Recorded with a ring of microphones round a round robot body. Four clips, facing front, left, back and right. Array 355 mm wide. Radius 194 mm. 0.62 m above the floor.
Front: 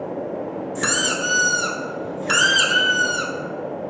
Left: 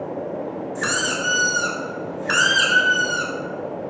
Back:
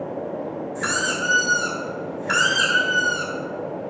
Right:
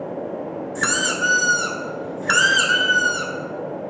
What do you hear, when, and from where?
0.8 s a squeak: 30° right, 0.8 m